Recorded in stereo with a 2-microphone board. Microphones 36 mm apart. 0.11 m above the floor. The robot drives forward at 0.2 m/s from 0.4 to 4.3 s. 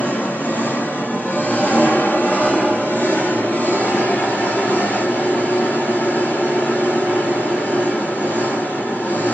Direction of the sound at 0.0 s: 65° left (ahead or behind).